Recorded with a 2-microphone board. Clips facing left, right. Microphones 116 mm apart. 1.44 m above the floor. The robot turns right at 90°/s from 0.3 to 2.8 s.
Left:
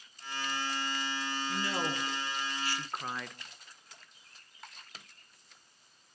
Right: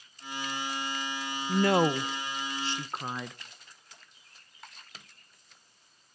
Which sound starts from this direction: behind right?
A woman speaking, at 1.5 s.